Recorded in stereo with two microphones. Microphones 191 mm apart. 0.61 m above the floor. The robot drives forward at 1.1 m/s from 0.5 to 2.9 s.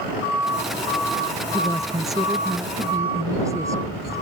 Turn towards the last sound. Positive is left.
turn(degrees=-15)  # may be behind; listen again after turning